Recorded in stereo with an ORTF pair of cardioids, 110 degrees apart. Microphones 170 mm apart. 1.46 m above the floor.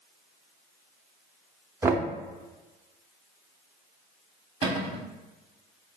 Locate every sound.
1.8 s knocking: 15° right, 0.5 m
4.6 s a cupboard door: 35° right, 0.8 m